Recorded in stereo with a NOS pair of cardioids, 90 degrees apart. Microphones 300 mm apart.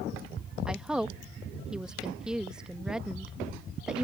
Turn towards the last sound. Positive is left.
turn(degrees=-5)